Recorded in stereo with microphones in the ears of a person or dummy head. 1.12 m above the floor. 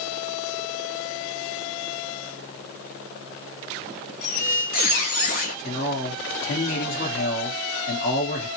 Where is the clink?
No clink in this recording.